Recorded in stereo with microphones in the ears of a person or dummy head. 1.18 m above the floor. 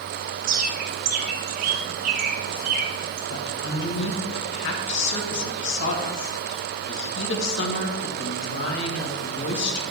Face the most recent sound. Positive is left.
turn(degrees=60)  # may be behind; listen again after turning